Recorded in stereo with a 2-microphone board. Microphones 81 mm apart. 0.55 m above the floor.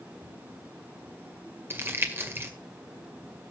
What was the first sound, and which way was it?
Crumpling, 30° right (ahead or behind).